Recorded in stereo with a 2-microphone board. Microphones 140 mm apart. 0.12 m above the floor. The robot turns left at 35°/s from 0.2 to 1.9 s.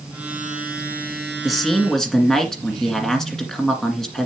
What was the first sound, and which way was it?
A man speaking, centre (ahead or behind).